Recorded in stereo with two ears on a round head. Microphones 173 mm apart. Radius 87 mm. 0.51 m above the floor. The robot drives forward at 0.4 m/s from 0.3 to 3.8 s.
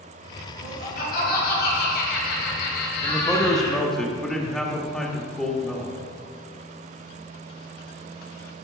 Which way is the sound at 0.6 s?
50° left (ahead or behind).